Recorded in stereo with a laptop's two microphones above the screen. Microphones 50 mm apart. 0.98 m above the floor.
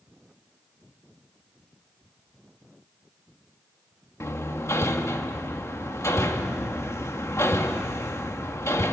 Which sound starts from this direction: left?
Hammering, at 4.2 s.